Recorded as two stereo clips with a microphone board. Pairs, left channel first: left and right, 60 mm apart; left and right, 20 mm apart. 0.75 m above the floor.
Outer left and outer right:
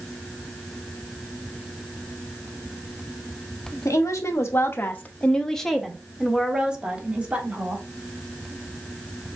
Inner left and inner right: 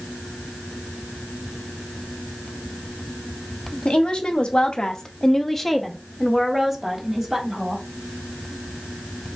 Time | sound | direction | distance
3.9 | a woman speaking | 55° left (ahead or behind) | 0.8 m